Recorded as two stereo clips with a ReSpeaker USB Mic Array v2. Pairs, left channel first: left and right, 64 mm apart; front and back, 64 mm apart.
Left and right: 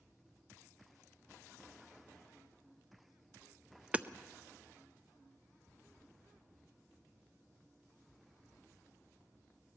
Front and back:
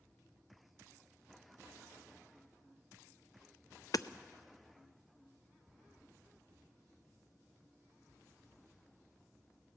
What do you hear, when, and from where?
3.9 s hammering: 20° right, 0.5 m